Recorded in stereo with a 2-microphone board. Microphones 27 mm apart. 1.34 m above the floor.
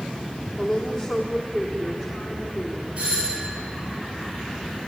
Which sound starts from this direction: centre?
A woman speaking, at 0.6 s.